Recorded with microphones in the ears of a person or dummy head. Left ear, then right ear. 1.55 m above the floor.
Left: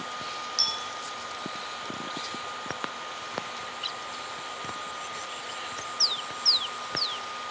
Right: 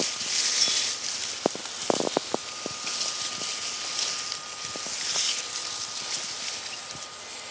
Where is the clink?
85° left, 9 m.